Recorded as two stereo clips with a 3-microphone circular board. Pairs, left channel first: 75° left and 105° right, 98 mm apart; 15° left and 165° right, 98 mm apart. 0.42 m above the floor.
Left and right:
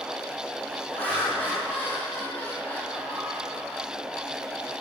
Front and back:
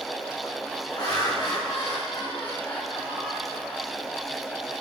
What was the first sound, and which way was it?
Laughter, 5° left.